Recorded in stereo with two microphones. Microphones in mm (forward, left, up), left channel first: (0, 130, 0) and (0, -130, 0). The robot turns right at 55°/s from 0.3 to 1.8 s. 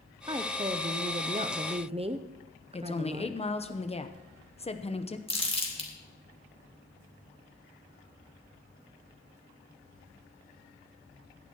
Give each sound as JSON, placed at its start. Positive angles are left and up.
{"t": 0.3, "sound": "a woman speaking", "side_deg": -20, "distance_m": 0.5}
{"t": 2.7, "sound": "a woman speaking", "side_deg": 25, "distance_m": 0.8}
{"t": 5.3, "sound": "crumpling", "side_deg": 20, "distance_m": 2.5}